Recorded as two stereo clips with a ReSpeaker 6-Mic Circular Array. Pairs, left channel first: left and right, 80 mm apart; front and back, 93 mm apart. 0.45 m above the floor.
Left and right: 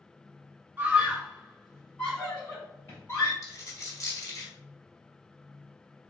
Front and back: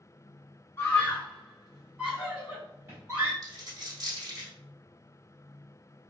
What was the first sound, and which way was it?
A scream, 45° right.